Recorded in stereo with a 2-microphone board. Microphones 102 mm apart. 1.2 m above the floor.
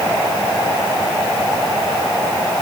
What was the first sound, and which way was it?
Only background noise.